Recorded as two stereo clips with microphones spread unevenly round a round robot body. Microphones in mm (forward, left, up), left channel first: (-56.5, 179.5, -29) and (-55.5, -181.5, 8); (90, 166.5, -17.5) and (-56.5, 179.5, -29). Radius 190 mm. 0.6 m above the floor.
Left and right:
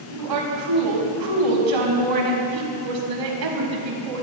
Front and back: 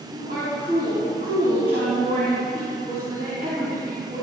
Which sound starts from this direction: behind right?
A woman speaking, at 0.1 s.